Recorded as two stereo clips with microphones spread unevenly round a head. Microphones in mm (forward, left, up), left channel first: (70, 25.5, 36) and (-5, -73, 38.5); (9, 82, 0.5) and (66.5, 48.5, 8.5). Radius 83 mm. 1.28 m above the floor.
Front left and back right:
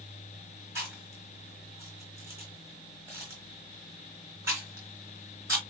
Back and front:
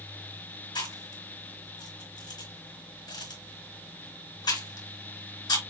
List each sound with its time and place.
0.8 s chewing: 160° left, 4 m